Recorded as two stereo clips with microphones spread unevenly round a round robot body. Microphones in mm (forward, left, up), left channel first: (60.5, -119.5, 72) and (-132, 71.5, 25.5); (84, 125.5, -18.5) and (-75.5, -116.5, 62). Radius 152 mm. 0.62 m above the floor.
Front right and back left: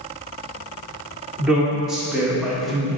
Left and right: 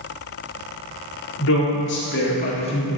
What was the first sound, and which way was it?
A woman speaking, 55° left.